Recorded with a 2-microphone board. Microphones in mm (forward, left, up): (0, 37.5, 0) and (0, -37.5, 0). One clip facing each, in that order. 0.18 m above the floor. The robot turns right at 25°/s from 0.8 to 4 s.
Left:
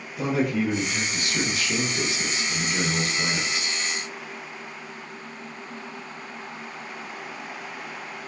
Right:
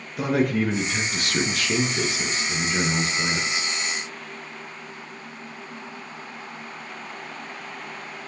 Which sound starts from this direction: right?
A man speaking, at 0.2 s.